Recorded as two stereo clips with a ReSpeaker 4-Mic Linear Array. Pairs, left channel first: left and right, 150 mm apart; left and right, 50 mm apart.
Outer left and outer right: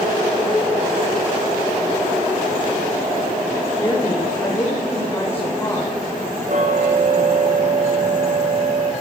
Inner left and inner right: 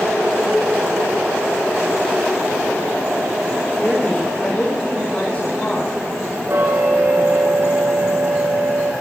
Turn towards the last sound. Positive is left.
turn(degrees=-55)  # may be behind; listen again after turning